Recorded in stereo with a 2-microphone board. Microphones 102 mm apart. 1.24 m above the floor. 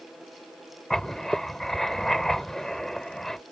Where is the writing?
5° left (ahead or behind).